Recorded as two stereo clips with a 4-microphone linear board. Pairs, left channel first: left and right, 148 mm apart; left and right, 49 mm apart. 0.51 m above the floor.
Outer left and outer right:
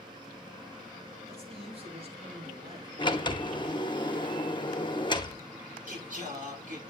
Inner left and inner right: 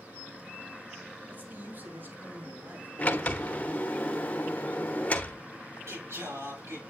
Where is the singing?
60° right (ahead or behind), 8 m.